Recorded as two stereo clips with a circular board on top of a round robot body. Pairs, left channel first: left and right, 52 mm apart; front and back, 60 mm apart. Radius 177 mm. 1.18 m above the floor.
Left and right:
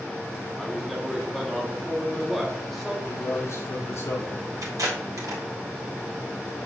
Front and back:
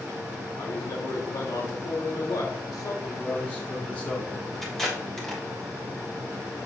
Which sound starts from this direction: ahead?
A man speaking, at 0.6 s.